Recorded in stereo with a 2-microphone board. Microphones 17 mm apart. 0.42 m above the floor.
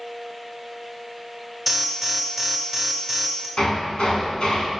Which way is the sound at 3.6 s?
80° left.